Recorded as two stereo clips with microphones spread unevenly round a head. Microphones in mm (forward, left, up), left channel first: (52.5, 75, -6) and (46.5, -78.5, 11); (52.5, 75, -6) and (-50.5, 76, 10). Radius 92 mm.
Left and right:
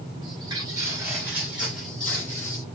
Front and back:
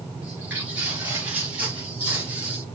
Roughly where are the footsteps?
Behind right.